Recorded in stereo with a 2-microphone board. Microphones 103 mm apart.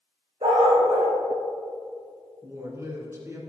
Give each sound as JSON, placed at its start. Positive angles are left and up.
{"t": 0.4, "sound": "a dog barking", "side_deg": -60, "distance_m": 3.0}
{"t": 2.4, "sound": "a woman speaking", "side_deg": -25, "distance_m": 1.8}